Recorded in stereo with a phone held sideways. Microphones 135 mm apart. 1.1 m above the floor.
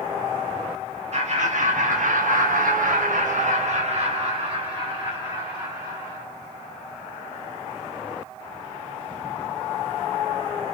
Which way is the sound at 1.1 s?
55° right (ahead or behind).